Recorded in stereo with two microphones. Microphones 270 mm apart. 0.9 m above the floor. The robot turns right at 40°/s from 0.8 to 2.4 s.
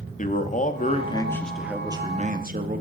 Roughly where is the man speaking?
Behind left.